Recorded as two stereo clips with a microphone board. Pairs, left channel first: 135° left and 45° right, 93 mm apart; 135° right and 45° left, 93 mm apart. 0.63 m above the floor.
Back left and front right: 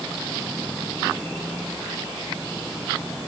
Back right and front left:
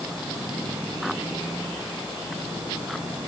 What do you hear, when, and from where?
Only background noise.